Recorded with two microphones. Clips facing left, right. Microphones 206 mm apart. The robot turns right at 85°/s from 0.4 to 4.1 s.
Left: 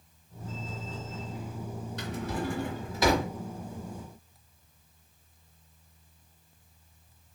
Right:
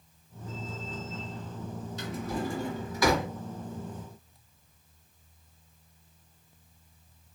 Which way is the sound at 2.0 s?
65° left (ahead or behind).